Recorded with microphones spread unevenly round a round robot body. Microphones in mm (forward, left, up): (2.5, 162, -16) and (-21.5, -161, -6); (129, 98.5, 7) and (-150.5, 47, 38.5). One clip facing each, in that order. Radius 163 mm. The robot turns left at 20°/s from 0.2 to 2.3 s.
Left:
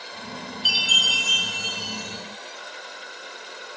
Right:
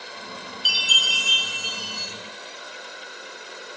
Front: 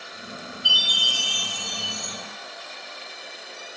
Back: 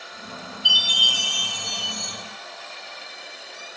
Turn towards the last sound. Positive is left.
turn(degrees=-150)